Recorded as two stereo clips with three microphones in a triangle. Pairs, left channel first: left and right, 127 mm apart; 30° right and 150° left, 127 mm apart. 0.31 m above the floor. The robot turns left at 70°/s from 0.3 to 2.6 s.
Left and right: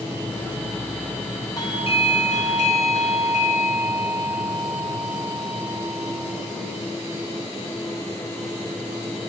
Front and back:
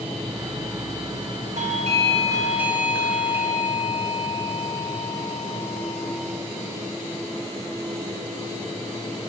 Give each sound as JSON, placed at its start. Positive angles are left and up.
{"t": 1.6, "sound": "a doorbell", "azimuth_deg": 150, "distance_m": 4.0}